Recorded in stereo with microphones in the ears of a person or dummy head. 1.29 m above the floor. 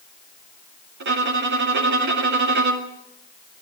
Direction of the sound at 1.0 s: 65° right (ahead or behind).